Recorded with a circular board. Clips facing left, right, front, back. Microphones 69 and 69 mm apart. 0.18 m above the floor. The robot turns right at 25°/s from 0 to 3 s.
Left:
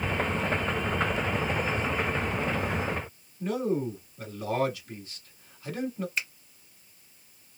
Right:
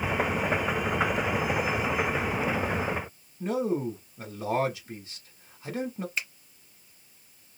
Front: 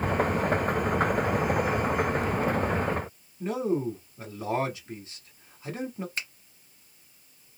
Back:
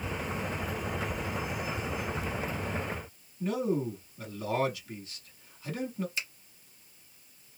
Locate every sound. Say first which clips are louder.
3.4 s a man speaking: right 1 dB, front 2 dB; 40° right, 1.3 m
6.2 s a finger snap: even, front 2 dB; straight ahead, 1.2 m